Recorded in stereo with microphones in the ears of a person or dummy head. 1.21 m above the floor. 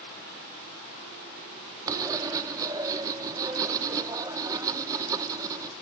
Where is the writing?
20° right (ahead or behind), 0.8 m.